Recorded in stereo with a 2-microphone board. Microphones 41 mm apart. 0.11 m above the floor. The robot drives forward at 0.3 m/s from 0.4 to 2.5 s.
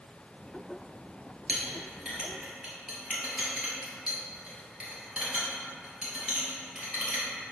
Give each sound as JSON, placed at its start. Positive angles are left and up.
{"t": 1.5, "sound": "a clink", "side_deg": -25, "distance_m": 1.0}